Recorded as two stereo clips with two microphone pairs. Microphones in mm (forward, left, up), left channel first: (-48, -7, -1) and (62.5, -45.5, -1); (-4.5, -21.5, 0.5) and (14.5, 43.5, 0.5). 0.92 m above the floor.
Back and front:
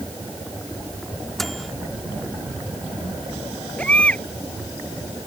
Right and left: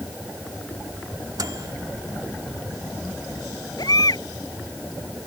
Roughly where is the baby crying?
Behind right.